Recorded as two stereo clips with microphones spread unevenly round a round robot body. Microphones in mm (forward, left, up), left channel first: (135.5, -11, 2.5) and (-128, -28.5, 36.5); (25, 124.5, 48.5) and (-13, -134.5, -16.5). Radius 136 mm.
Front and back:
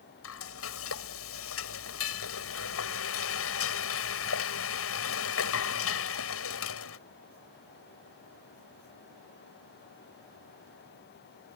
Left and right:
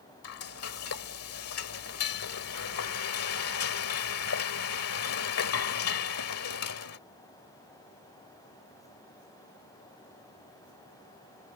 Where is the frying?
45° left.